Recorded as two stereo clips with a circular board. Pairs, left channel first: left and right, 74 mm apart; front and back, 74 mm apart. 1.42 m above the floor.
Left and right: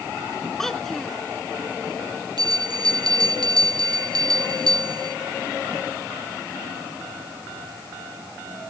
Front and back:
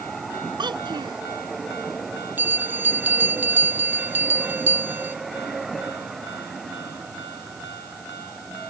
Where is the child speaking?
175° left.